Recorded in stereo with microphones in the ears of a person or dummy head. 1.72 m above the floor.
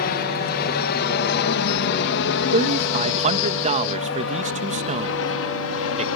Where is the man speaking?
40° right (ahead or behind).